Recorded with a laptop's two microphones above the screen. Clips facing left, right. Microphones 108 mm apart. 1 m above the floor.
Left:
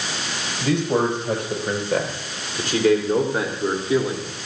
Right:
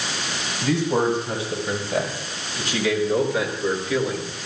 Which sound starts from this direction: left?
A man speaking, at 0.6 s.